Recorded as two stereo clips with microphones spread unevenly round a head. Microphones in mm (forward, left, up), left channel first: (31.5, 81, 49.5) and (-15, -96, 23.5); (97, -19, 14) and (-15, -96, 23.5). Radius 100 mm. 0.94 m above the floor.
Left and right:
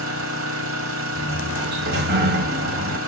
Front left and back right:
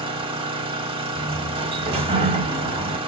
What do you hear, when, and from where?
0.0 s an engine running: 110° right, 1.1 m
1.1 s a sliding door: 100° right, 1.3 m